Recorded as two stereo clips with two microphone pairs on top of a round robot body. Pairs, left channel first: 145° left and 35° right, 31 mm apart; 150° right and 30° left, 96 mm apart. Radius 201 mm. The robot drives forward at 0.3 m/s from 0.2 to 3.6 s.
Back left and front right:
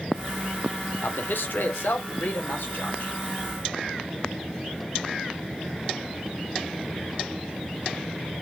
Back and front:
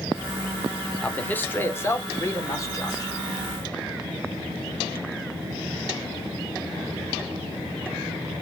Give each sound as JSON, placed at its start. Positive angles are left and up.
{"t": 1.0, "sound": "a man speaking", "azimuth_deg": 140, "distance_m": 0.7}